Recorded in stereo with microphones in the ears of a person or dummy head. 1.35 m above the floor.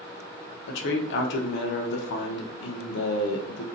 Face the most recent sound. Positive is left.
turn(degrees=70)  # may be behind; listen again after turning